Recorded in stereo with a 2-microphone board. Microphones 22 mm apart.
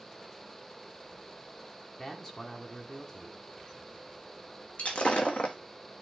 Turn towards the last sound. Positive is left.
turn(degrees=85)